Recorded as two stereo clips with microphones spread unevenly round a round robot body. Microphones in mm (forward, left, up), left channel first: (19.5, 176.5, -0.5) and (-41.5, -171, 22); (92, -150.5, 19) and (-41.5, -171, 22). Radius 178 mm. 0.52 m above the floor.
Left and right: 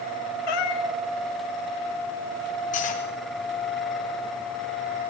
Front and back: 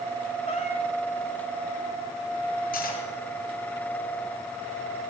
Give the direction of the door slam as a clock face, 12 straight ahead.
I don't hear a door slam.